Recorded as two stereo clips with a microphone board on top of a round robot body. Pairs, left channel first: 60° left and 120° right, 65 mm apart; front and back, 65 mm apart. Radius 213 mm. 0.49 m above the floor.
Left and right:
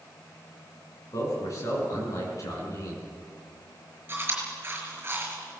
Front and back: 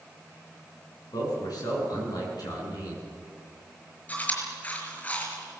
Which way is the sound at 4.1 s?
65° right.